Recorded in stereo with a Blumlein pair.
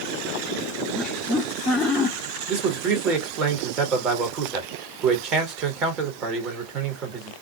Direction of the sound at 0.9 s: 5° left.